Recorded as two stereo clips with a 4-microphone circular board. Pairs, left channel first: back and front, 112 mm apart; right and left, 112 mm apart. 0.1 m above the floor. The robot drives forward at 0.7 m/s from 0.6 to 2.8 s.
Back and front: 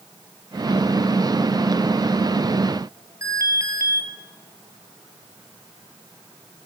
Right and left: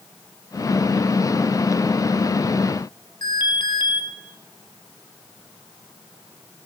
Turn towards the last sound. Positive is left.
turn(degrees=-55)